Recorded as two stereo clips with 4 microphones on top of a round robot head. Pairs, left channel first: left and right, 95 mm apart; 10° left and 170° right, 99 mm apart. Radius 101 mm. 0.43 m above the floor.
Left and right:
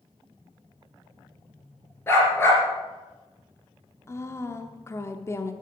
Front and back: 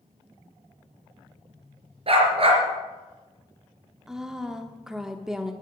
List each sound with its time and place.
2.1 s a dog barking: 160° left, 3.5 m
4.1 s a woman speaking: 110° left, 0.9 m